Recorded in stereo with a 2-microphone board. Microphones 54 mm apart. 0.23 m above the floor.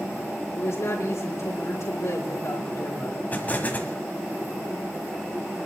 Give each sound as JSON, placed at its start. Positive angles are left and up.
{"t": 0.6, "sound": "a woman speaking", "side_deg": 70, "distance_m": 4.5}
{"t": 3.3, "sound": "an explosion", "side_deg": 35, "distance_m": 1.4}